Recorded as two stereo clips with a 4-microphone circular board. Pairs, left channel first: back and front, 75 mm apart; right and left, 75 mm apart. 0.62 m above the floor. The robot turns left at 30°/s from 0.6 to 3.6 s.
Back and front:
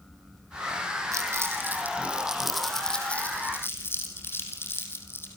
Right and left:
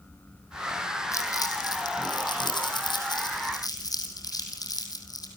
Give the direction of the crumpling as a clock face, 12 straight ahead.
2 o'clock.